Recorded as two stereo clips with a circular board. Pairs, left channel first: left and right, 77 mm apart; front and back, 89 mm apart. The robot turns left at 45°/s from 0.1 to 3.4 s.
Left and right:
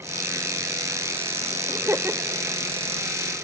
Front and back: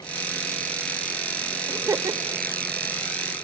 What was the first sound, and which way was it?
Laughter, 130° right.